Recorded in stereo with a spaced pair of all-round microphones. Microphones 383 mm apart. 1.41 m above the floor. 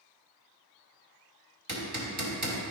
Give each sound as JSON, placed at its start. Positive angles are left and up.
{"t": 1.7, "sound": "hammering", "side_deg": -45, "distance_m": 1.5}